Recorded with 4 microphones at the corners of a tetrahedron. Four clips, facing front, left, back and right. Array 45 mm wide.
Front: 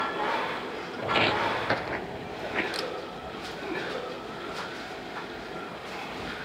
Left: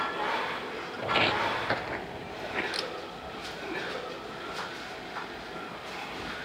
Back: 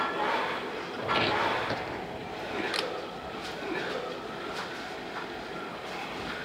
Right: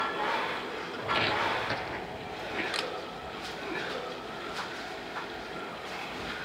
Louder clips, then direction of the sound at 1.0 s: Left 2 dB, front 2 dB; 60° left.